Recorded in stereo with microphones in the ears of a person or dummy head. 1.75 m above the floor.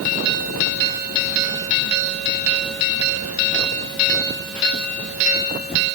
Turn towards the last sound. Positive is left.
No sound to turn to.